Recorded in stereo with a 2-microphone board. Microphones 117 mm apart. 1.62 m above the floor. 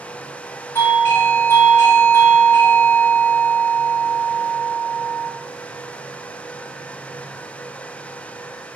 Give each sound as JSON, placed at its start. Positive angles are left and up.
{"t": 0.8, "sound": "a doorbell", "side_deg": 20, "distance_m": 0.7}